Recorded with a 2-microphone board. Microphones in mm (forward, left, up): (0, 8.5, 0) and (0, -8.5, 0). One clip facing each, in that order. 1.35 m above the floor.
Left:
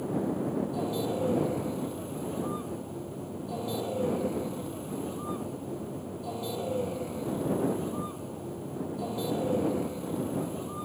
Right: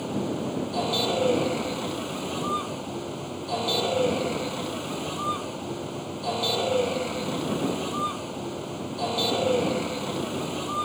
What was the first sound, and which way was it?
A vehicle, 45° right (ahead or behind).